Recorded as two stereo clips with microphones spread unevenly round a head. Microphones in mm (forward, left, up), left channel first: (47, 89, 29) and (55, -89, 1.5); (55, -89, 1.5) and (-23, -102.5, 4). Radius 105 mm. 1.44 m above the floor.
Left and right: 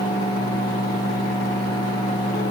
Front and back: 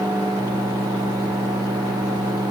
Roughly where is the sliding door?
No sliding door in this recording.